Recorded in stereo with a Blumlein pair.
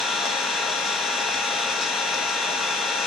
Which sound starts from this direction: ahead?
An engine running, at 0.0 s.